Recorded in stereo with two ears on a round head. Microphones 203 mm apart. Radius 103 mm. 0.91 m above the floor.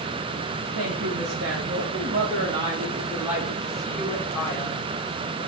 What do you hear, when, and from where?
0.8 s a woman speaking: 75° right (ahead or behind), 2.5 m; by 4.9 s 10° left (ahead or behind), 5.5 m